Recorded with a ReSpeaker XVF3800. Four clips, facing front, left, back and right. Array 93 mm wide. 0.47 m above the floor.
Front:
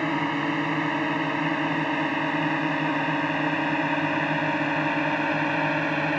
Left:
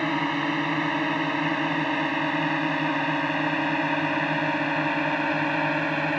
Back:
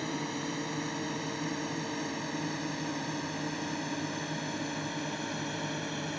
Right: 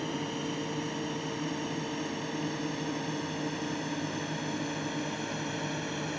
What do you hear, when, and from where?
0.0 s a drone: 50° left; by 6.2 s 45° left